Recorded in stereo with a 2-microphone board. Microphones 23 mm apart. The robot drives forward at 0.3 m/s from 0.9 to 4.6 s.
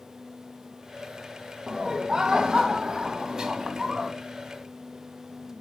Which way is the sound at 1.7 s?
30° right (ahead or behind).